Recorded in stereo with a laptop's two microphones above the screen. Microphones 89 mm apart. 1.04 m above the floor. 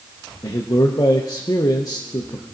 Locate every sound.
0.4 s a man speaking: 45° left (ahead or behind), 0.6 m